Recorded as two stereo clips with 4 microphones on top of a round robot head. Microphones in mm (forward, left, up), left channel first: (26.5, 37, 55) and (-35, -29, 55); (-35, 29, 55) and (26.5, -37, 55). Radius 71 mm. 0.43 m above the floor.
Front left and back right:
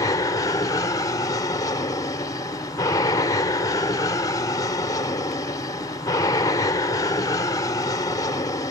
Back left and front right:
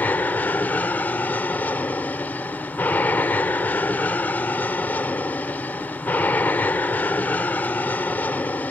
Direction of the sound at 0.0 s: 70° left.